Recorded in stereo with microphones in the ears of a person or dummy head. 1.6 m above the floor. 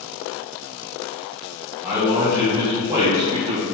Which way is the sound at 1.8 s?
Centre (ahead or behind).